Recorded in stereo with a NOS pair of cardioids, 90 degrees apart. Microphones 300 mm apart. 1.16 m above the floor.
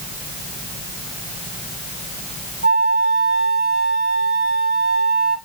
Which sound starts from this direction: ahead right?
A flute, at 2.6 s.